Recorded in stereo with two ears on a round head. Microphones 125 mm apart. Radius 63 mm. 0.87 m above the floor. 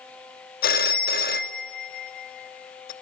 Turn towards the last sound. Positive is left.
turn(degrees=70)  # may be behind; listen again after turning